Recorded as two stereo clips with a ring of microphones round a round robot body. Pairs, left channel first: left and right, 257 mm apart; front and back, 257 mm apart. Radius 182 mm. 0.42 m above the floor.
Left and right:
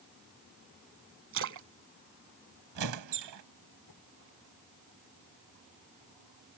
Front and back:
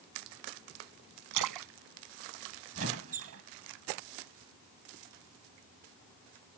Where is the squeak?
125° right.